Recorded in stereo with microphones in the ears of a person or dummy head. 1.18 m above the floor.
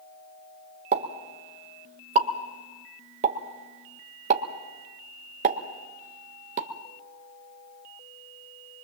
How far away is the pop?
About 1.6 m.